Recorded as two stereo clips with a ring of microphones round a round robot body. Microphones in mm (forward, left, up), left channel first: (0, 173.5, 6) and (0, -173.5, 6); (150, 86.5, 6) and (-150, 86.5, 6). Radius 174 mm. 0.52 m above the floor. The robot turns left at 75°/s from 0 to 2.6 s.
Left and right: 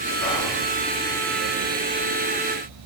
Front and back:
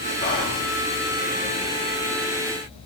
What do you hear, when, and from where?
0.2 s whispering: 45° left, 0.8 m; by 0.6 s 20° left, 0.8 m